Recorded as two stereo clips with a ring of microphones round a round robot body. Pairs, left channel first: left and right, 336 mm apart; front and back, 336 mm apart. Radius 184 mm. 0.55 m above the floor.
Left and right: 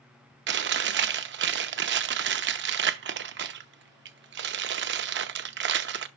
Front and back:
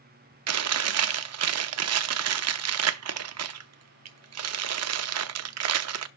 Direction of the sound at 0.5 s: 145° right.